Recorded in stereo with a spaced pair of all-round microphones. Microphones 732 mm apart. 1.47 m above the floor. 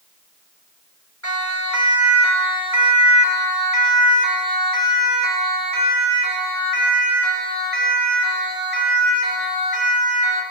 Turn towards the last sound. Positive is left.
turn(degrees=30)  # may be behind; listen again after turning